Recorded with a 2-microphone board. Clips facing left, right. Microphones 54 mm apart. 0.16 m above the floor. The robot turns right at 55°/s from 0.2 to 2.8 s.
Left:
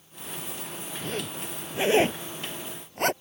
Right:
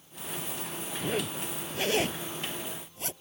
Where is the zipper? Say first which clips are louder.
Right 2 dB; 15° right (ahead or behind); by 3.1 s 65° left (ahead or behind).